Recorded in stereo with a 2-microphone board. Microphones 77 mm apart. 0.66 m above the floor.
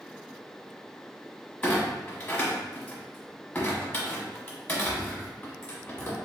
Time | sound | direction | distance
1.6 | a clunk | 25° left (ahead or behind) | 1.2 m